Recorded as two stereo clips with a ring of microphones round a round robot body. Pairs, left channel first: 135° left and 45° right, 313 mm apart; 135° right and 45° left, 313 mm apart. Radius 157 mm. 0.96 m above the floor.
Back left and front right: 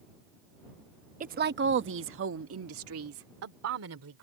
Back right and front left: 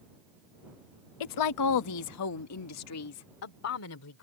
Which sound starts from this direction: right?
A woman speaking, at 1.2 s.